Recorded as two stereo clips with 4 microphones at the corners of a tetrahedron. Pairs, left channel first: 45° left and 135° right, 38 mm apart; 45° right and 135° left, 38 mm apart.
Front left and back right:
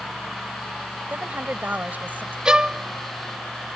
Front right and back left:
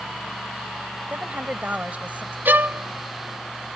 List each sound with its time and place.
1.1 s a woman speaking: 175° right
2.5 s a violin: 160° left